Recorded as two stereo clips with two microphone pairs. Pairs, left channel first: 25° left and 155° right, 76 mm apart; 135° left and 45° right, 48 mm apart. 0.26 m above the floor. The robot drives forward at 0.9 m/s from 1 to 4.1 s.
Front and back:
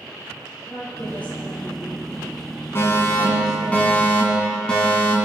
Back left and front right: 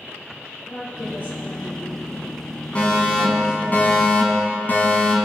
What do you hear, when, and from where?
0.7 s a woman speaking: 90° left, 6.5 m; by 3.8 s 110° left, 7 m
2.8 s a fire alarm: 75° left, 3.5 m; by 5.2 s 95° left, 3.5 m